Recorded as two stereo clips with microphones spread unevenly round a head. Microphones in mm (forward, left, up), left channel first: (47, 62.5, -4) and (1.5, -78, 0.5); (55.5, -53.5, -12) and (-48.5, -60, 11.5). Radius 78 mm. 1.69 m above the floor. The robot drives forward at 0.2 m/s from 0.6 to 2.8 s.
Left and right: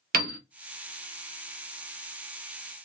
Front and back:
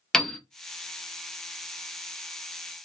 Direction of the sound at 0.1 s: 80° right.